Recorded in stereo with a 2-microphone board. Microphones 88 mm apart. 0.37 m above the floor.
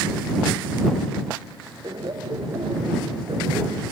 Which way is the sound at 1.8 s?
55° right (ahead or behind).